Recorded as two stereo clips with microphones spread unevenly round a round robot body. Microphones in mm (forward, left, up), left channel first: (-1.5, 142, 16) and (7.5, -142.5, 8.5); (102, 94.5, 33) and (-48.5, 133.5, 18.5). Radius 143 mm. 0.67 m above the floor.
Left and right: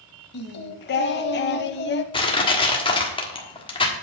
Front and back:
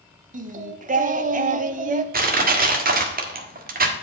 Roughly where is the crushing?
Behind.